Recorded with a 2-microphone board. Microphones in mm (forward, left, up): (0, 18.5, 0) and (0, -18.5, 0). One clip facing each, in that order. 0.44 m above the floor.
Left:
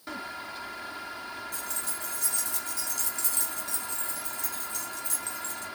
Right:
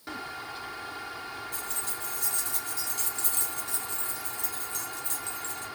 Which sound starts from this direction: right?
Keys jangling, at 1.5 s.